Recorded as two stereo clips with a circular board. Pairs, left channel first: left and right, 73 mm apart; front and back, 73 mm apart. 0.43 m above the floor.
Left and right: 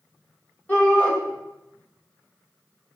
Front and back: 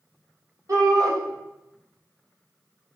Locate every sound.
0.7 s a shout: 150° left, 2.0 m